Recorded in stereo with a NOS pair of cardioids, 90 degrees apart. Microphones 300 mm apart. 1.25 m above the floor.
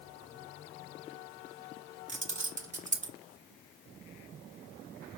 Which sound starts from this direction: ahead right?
Keys jangling, at 2.1 s.